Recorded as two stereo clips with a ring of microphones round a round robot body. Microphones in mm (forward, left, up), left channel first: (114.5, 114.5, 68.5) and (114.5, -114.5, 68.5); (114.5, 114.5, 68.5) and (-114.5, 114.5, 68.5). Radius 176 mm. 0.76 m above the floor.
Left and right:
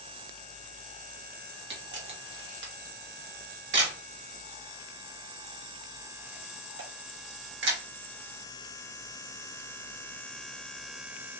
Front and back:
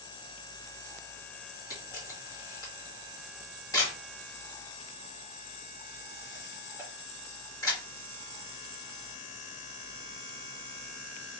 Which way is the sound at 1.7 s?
75° right.